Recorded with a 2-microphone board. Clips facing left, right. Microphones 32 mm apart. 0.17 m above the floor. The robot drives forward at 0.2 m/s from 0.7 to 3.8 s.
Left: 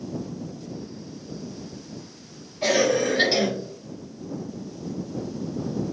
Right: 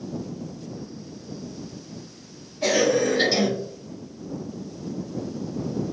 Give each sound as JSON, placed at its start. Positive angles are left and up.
{"t": 2.6, "sound": "a cough", "side_deg": 20, "distance_m": 1.2}